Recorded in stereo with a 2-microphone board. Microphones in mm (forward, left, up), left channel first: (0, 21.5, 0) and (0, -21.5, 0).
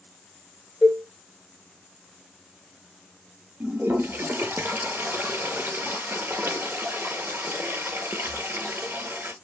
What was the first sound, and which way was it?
A cowbell, 35° right (ahead or behind).